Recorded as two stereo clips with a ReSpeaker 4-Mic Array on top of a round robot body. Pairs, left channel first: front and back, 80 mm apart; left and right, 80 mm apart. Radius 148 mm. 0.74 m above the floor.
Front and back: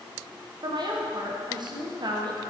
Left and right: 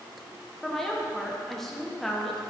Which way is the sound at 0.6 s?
175° left.